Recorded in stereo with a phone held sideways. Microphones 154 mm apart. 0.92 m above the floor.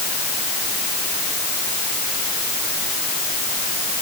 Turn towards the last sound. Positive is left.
No sound to turn to.